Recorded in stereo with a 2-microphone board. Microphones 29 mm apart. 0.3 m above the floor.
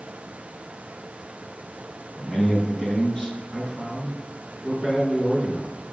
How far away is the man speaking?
About 5.5 m.